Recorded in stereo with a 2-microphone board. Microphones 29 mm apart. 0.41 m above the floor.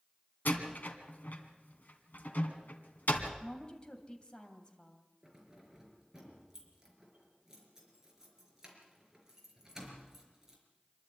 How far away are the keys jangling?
About 4.5 m.